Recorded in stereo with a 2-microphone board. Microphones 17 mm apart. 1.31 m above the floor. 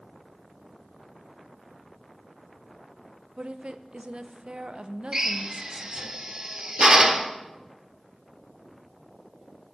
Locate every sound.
3.4 s a woman speaking: 85° right, 0.7 m
5.1 s a drill: 35° right (ahead or behind), 1.2 m